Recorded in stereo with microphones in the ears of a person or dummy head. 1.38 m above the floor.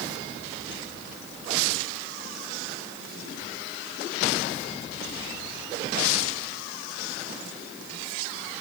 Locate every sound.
Only background noise.